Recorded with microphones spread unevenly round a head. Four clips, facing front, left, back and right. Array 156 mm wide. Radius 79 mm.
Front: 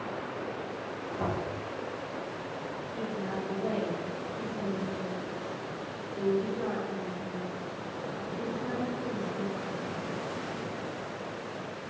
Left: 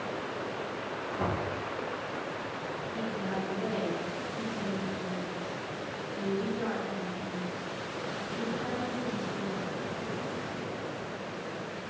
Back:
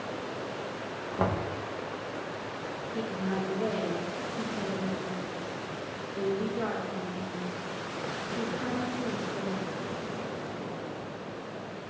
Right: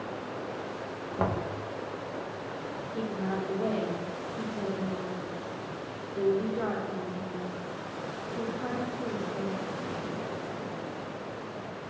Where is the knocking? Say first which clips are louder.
Right 3 dB, back 4 dB; 150° right, 0.5 m.